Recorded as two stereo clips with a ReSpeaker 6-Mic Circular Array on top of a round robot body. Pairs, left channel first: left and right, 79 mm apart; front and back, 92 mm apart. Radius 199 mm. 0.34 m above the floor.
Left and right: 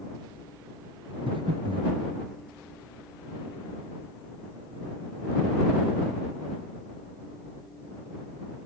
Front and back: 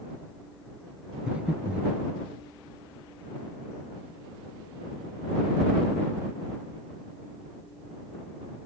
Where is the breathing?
100° right.